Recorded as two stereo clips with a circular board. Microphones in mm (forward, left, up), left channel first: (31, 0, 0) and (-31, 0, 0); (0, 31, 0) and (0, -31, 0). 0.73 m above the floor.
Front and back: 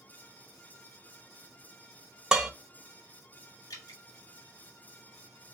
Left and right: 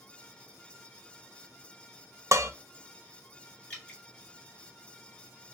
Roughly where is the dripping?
Ahead left.